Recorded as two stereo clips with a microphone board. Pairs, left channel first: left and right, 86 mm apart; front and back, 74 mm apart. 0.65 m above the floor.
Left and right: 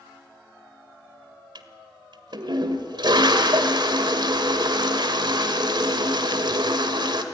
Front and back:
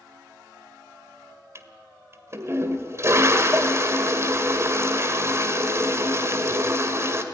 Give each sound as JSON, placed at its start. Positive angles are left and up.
{"t": 1.6, "sound": "a toilet flushing", "azimuth_deg": -125, "distance_m": 1.6}